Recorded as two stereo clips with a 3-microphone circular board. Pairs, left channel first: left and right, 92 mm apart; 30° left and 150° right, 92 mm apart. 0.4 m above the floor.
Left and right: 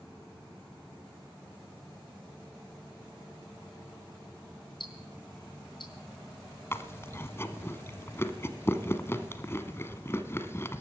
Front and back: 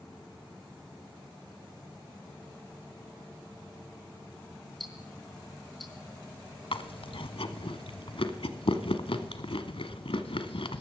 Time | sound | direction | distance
4.8 | ticking | 120° left | 4 m
6.7 | chewing | 30° left | 1.2 m